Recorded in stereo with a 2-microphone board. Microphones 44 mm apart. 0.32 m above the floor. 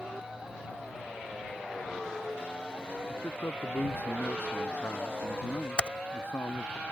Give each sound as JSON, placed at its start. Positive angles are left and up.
{"t": 3.1, "sound": "a man speaking", "side_deg": 55}
{"t": 5.8, "sound": "typing on a keyboard", "side_deg": 25}